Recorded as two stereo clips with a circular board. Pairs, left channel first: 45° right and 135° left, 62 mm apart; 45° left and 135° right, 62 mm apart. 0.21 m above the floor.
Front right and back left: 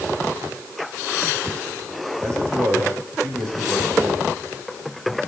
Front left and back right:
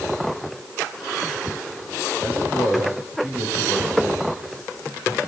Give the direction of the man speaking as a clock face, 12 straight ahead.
6 o'clock.